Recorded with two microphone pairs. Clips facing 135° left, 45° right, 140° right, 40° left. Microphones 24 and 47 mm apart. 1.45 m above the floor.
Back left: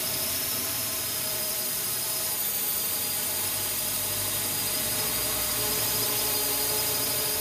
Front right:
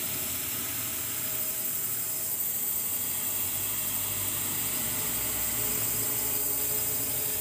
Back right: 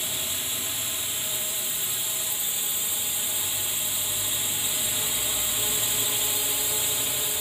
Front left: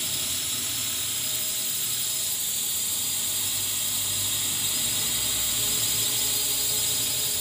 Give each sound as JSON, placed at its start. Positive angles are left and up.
{"t": 0.0, "sound": "a drone", "azimuth_deg": 160}